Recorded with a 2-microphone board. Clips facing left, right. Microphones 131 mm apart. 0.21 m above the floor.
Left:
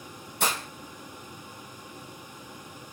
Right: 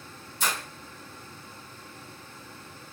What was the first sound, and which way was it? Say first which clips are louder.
Breaking glass: left 2 dB; 70° left (ahead or behind).